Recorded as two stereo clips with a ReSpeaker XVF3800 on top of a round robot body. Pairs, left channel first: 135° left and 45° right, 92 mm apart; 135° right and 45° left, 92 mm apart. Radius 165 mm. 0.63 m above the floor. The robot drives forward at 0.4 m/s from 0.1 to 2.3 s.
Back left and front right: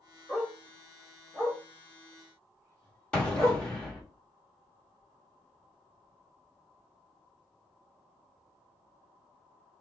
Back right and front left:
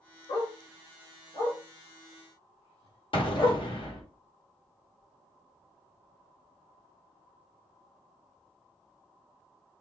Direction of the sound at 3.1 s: 145° right.